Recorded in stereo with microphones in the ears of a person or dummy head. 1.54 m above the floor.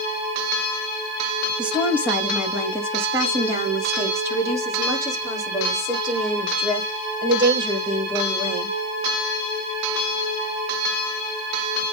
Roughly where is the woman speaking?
Centre.